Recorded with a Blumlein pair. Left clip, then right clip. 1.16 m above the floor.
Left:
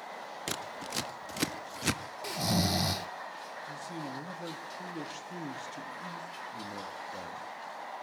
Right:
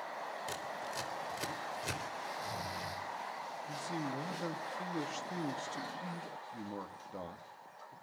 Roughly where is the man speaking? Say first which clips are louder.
Right 2 dB; ahead.